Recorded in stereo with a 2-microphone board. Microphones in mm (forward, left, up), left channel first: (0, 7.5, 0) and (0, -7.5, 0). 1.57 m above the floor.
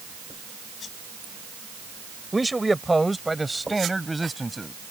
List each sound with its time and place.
2.3 s a man speaking: 5° right (ahead or behind)